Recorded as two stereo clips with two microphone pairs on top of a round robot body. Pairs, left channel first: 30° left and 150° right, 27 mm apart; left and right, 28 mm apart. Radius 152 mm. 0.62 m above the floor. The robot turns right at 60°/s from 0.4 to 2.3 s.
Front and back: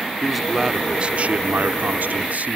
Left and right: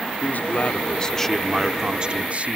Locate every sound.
0.2 s a man speaking: 120° left; by 2.6 s 125° right